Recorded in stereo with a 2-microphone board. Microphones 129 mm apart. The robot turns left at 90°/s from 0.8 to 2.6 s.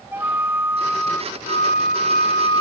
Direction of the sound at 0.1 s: 165° right.